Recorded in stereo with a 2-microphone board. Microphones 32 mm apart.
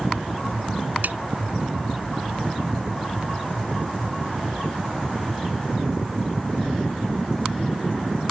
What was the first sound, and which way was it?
A snare drum, 70° right (ahead or behind).